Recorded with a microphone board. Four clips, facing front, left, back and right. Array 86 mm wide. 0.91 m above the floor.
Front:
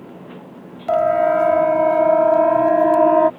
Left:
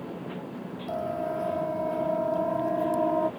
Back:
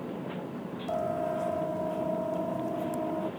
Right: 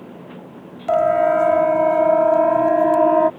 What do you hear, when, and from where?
0.9 s a siren: 45° right; by 3.3 s 30° right